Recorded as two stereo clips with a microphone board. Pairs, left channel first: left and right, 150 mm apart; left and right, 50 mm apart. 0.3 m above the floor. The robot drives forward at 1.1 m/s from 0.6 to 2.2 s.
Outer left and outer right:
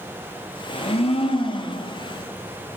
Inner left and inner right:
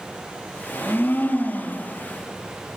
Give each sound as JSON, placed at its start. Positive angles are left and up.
{"t": 0.7, "sound": "a blender", "side_deg": 45, "distance_m": 4.5}